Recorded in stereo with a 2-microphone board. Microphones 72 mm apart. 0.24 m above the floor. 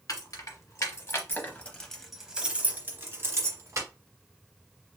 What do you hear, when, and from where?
0.1 s keys jangling: 55° left (ahead or behind), 1.3 m; by 3.9 s 45° right (ahead or behind), 1.3 m